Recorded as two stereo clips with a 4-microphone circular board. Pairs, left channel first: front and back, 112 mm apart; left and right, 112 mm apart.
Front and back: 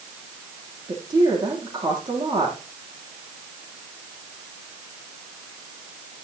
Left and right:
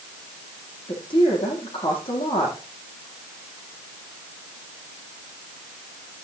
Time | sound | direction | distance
0.9 | a woman speaking | 130° left | 10 m